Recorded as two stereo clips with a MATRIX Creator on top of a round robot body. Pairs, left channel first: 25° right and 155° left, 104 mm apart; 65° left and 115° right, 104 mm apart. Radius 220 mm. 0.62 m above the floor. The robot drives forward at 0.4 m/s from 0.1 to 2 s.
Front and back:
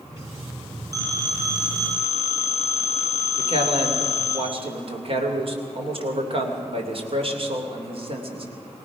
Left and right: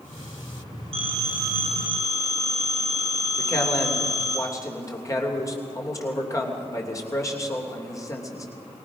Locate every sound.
0.9 s a phone ringing: 145° right, 5 m
3.4 s a man speaking: 125° left, 3 m